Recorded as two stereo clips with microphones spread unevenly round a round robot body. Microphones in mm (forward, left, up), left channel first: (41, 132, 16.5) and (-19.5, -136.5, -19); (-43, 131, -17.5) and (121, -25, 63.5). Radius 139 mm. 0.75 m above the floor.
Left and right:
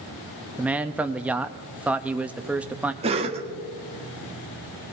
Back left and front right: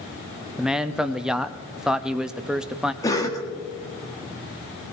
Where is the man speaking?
170° right, 0.5 m.